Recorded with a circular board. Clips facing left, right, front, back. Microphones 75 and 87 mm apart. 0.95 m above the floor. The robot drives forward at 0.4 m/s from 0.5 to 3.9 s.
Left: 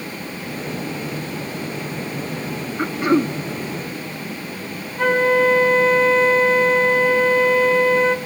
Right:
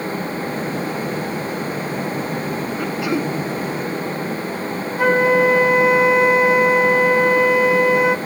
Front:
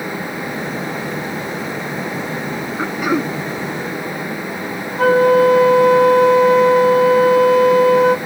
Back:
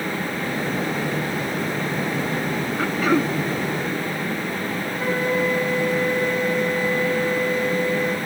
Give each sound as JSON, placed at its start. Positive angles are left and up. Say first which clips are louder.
{"t": 2.8, "sound": "throat clearing", "louder": "left 6 dB, front 1 dB", "azimuth_deg": 60, "distance_m": 0.9}
{"t": 5.0, "sound": "a flute", "louder": "right 1 dB, front 12 dB", "azimuth_deg": -10, "distance_m": 1.2}